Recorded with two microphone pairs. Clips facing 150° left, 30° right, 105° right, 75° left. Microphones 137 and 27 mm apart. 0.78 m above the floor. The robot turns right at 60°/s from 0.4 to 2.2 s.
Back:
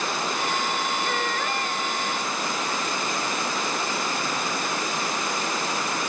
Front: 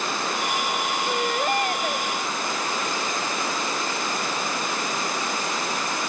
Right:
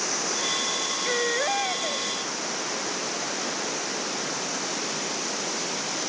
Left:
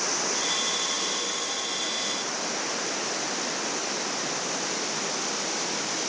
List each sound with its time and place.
1.1 s a baby crying: 110° right; by 2.1 s 45° right